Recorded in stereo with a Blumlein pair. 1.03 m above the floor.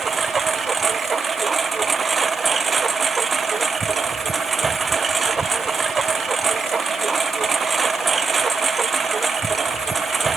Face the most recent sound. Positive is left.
turn(degrees=-15)